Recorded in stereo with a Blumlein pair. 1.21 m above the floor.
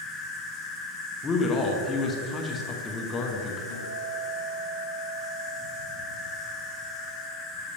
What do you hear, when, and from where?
0.0 s an insect: 15° left, 1.7 m
1.2 s a man speaking: 20° left, 1.1 m
3.7 s a guitar: 60° left, 1.5 m